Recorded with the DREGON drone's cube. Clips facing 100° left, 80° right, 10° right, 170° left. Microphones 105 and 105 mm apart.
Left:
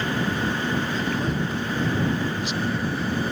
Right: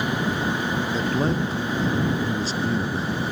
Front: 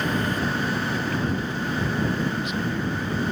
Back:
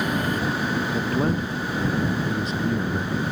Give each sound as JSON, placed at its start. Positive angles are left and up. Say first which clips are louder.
{"t": 0.9, "sound": "a man speaking", "louder": "right 2 dB, back 3 dB", "azimuth_deg": -135}